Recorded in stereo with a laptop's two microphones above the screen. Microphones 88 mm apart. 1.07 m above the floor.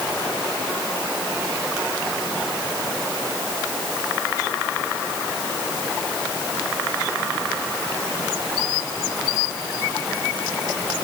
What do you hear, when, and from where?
Only background noise.